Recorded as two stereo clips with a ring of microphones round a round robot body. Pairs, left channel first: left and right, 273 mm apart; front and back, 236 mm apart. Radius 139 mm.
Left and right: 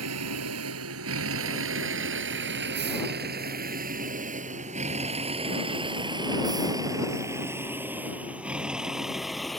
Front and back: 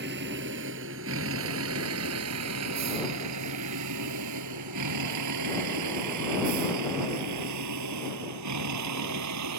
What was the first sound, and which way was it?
A vehicle, 125° right.